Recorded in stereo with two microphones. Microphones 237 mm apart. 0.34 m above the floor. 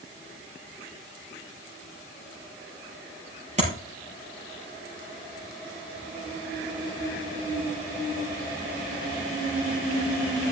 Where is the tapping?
30° right (ahead or behind), 5 m.